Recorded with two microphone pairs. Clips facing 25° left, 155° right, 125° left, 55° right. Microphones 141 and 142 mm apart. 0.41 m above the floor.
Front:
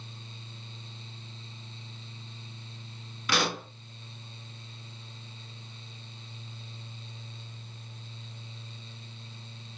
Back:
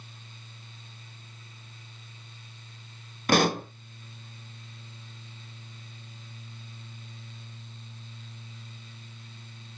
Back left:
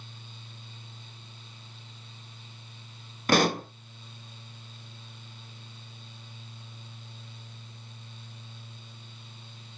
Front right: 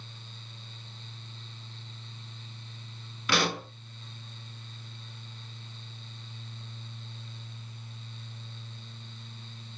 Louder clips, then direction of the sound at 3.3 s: Back 7 dB, back left 6 dB; 170° left.